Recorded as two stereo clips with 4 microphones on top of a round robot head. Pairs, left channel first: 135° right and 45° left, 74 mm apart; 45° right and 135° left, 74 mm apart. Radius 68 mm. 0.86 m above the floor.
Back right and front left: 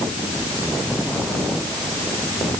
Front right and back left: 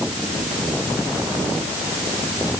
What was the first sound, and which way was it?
Only background noise.